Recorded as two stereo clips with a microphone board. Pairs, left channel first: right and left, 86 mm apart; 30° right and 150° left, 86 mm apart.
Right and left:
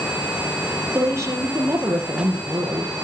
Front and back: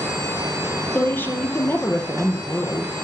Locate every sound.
0.9 s a woman speaking: 35° left, 5 m